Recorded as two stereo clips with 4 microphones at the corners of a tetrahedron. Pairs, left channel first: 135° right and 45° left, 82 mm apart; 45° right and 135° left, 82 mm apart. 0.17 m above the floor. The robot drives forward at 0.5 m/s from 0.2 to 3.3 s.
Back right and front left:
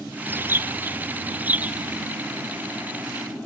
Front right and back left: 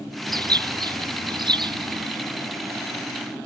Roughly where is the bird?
Left.